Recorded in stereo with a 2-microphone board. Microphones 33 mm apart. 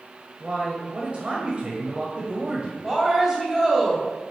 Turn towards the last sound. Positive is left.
turn(degrees=-15)  # may be behind; listen again after turning